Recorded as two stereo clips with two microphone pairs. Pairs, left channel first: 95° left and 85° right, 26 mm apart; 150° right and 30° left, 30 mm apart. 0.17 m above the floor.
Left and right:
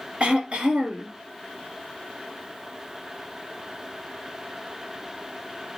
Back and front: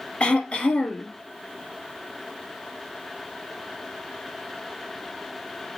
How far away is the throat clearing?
About 2 m.